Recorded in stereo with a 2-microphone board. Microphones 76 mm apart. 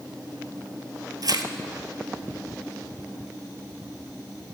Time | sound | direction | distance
1.2 | tearing paper | 60° right (ahead or behind) | 0.6 m